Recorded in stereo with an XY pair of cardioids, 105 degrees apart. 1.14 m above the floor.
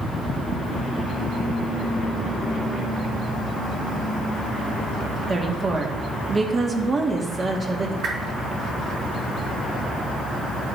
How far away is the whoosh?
About 3.5 m.